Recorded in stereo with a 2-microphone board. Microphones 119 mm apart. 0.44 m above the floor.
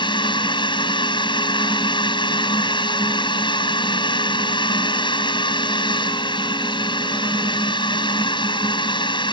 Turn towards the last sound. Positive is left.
turn(degrees=45)  # may be behind; listen again after turning